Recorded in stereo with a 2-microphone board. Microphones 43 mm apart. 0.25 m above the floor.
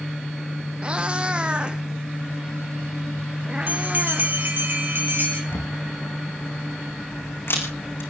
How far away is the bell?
About 3.5 m.